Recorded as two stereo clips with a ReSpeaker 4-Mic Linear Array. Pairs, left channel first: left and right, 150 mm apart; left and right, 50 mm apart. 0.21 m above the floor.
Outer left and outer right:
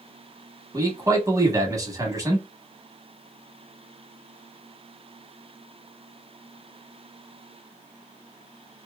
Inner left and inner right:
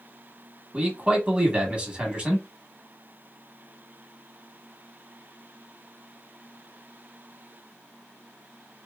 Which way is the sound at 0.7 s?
25° right (ahead or behind).